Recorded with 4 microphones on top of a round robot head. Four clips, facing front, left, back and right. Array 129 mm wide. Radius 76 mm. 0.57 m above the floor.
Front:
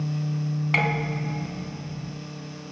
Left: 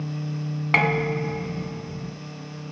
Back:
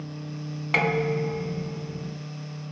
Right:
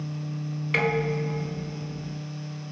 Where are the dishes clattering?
100° left, 3.5 m.